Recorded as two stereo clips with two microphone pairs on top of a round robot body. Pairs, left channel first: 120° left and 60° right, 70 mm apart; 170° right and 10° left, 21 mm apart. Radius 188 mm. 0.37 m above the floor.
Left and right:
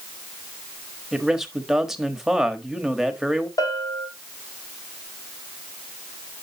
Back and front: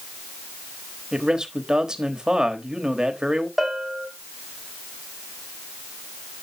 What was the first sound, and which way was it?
A man speaking, 5° right.